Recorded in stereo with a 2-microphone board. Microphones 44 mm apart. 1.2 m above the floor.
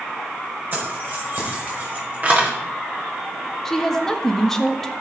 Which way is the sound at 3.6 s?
5° left (ahead or behind).